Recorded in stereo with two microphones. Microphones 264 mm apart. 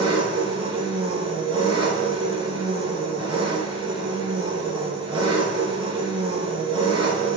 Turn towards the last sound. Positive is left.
turn(degrees=-20)  # may be behind; listen again after turning